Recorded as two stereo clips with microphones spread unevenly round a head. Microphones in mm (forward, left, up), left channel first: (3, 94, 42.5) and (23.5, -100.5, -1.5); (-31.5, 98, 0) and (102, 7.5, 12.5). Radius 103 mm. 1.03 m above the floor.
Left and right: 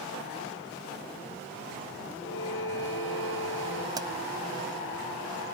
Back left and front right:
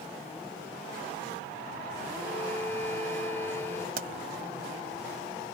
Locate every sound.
2.2 s a violin: 70° left
4.0 s a pop: 10° right